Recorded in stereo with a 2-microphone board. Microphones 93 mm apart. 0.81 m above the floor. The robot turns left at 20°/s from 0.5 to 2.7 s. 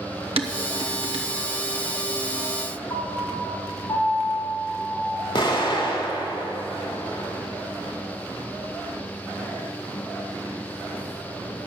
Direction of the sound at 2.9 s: 40° left (ahead or behind).